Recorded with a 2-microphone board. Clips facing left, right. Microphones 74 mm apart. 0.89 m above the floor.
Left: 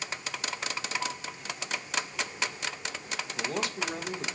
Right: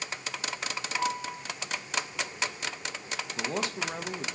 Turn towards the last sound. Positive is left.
turn(degrees=-30)  # may be behind; listen again after turning